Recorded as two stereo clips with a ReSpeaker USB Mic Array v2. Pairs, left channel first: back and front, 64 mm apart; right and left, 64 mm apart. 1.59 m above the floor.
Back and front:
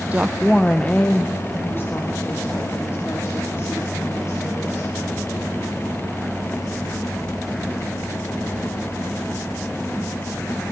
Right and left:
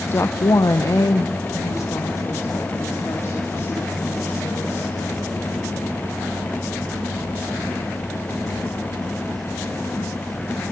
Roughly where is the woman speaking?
Ahead right.